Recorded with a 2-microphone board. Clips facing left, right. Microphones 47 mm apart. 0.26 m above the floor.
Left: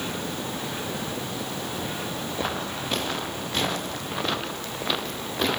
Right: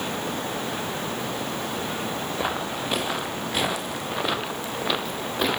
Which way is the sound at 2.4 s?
10° right (ahead or behind).